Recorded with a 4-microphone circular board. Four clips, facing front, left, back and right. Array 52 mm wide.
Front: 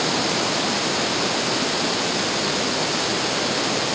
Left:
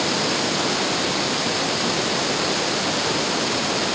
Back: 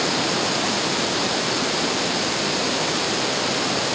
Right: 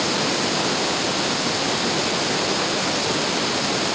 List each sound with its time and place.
Only background noise.